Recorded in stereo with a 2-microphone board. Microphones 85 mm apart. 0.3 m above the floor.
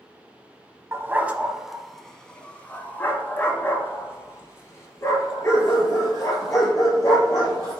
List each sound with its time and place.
0.9 s a dog barking: 30° right (ahead or behind), 0.8 m; by 7.8 s 40° left (ahead or behind), 4 m